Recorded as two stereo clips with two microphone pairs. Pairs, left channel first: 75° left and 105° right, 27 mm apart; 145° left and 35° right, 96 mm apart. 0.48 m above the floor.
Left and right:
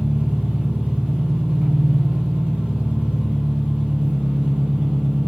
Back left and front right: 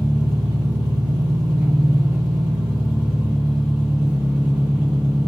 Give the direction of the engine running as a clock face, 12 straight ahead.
4 o'clock.